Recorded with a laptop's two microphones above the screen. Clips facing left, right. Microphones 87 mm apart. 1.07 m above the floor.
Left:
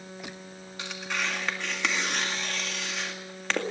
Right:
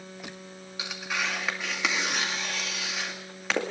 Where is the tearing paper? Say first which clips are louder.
Even; 5° right (ahead or behind), 2 m.